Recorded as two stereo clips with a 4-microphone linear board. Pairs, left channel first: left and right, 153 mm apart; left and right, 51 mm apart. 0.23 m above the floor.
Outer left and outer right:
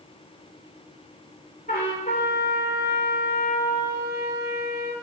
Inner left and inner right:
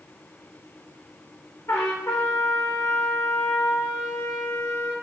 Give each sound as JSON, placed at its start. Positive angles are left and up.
{"t": 1.7, "sound": "a trumpet", "side_deg": 75, "distance_m": 2.5}